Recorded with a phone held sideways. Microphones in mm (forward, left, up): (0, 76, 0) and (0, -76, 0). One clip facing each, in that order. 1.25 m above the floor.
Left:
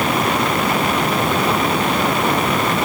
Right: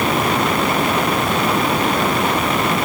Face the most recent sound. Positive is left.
No sound to turn to.